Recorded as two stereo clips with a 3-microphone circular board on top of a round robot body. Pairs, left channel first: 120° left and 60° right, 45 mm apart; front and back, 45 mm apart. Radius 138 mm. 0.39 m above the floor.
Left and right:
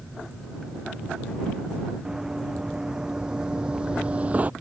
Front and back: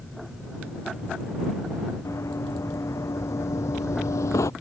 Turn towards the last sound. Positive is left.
turn(degrees=0)